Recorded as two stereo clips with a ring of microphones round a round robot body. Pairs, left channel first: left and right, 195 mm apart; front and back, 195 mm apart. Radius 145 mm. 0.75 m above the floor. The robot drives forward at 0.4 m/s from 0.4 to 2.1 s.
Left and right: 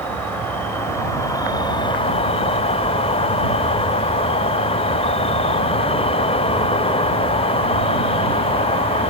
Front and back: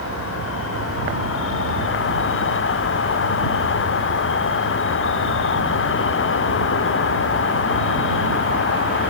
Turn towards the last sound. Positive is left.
turn(degrees=25)